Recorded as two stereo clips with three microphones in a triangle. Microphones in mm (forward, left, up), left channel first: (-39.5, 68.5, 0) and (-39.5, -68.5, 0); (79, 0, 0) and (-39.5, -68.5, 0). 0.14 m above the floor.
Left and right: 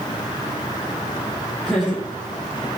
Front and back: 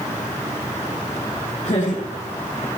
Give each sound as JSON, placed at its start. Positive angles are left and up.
{"t": 1.6, "sound": "laughter", "azimuth_deg": 0, "distance_m": 4.5}